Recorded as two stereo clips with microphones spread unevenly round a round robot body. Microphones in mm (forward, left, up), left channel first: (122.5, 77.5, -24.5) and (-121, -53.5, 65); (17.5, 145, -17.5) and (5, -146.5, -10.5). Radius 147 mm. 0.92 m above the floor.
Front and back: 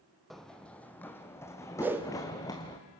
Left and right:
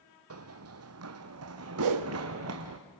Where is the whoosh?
65° right, 1.1 m.